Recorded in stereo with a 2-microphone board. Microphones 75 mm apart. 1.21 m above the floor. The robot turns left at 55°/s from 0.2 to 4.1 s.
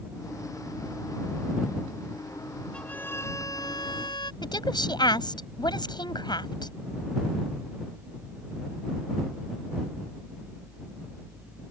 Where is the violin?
165° left; by 4.3 s 90° left.